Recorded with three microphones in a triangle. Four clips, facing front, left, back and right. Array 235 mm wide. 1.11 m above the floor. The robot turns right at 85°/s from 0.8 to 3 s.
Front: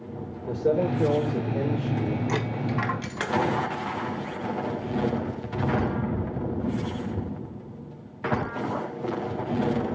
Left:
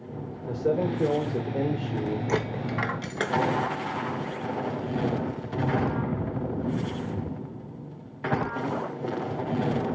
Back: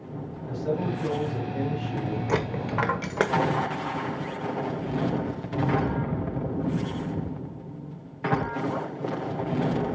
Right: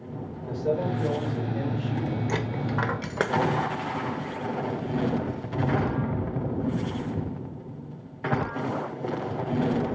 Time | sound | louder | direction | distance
0.5 | a man speaking | left 1 dB, front 5 dB | 25° left | 4 m
2.3 | a dropped coin | left 1 dB, back 1 dB | 145° left | 1.3 m